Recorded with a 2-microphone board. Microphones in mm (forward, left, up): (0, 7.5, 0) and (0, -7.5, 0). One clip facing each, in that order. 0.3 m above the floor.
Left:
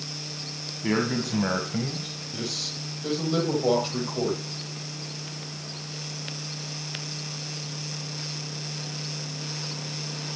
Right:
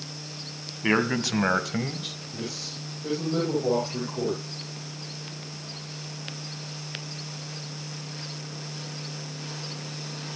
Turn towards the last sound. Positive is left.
turn(degrees=80)